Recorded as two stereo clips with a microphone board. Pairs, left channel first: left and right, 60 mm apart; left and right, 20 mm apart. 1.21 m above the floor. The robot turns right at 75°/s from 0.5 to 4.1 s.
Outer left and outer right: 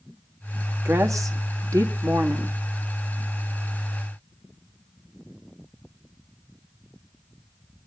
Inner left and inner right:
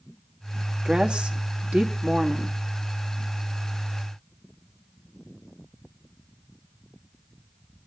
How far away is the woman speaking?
About 2.5 m.